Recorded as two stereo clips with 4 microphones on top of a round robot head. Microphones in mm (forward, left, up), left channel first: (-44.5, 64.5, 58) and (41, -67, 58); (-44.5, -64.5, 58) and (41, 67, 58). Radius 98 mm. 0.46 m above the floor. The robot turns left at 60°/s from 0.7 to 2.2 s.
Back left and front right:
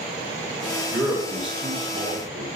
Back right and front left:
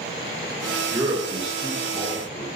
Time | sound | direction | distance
0.9 | a man speaking | 5° left | 1.5 m